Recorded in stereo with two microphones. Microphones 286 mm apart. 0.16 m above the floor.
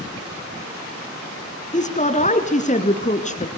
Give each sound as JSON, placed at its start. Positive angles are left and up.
{"t": 1.7, "sound": "a woman speaking", "side_deg": 25, "distance_m": 2.0}